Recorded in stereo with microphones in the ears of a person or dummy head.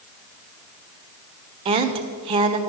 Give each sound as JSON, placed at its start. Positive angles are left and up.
{"t": 1.6, "sound": "a woman speaking", "side_deg": -30, "distance_m": 0.7}